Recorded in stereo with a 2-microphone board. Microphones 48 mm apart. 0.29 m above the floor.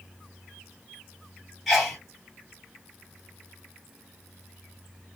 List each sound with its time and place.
1.7 s a sneeze: centre (ahead or behind), 1.8 m